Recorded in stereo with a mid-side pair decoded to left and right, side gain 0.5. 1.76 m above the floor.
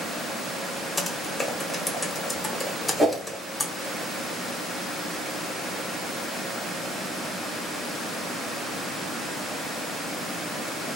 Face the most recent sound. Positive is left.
turn(degrees=-10)